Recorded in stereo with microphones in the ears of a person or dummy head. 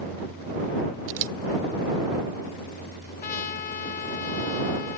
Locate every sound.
1.1 s a camera shutter: 75° right (ahead or behind)
3.2 s a trumpet: 50° left (ahead or behind)